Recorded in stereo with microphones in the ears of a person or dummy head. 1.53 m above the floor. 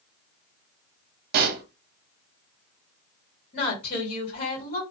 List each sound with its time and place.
1.3 s a pop: 55° right (ahead or behind), 0.5 m
3.5 s a woman speaking: 50° left (ahead or behind), 1.5 m